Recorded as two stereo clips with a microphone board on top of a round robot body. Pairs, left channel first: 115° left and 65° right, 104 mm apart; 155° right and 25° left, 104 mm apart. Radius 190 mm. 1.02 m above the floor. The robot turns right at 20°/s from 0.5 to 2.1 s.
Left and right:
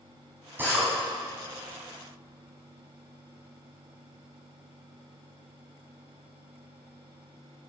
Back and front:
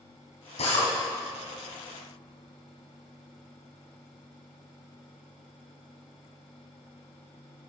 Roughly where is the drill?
Behind right.